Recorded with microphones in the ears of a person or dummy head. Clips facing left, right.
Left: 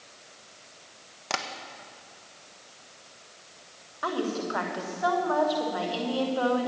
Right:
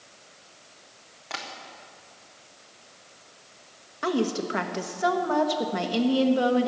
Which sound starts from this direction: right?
A woman speaking, at 4.0 s.